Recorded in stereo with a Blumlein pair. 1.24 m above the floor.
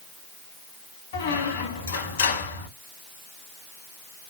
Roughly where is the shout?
I don't hear a shout.